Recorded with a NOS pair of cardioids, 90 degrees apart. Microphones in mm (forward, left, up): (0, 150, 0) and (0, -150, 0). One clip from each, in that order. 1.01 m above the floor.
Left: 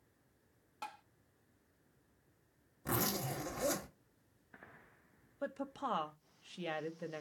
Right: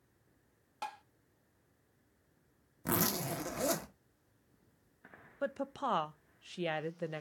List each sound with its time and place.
0.8 s tapping: 20° right, 0.6 m
2.9 s a zipper: 40° right, 1.4 m
5.4 s a woman speaking: 20° right, 0.5 m